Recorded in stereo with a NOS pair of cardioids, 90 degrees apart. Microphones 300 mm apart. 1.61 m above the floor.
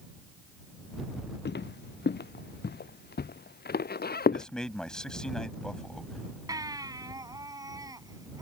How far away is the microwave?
I don't hear a microwave.